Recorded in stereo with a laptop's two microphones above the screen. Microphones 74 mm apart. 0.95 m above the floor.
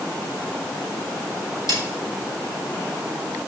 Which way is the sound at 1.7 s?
80° right.